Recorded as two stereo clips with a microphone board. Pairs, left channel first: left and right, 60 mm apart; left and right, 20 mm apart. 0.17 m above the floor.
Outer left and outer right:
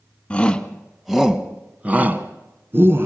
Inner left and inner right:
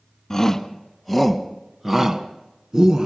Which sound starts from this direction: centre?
A shout, at 0.3 s.